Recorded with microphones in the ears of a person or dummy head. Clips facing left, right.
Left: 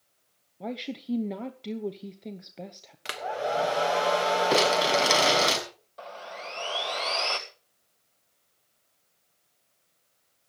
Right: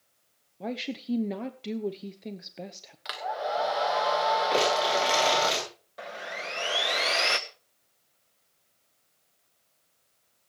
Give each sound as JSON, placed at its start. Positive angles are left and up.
{"t": 0.6, "sound": "a woman speaking", "side_deg": -10, "distance_m": 0.9}
{"t": 3.0, "sound": "a hair dryer", "side_deg": 40, "distance_m": 1.2}
{"t": 4.5, "sound": "crumpling", "side_deg": 55, "distance_m": 5.5}
{"t": 6.0, "sound": "sawing", "side_deg": -20, "distance_m": 1.3}